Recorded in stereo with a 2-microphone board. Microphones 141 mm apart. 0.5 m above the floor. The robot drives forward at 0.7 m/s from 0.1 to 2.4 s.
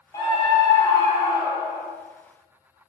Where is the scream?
25° left (ahead or behind), 1.1 m; by 1.9 s 20° left (ahead or behind), 1.4 m.